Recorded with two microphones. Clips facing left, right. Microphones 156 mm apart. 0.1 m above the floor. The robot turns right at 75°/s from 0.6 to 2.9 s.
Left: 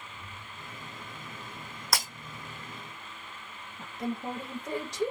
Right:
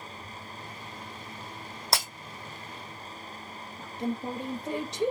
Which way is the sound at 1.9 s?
25° right (ahead or behind).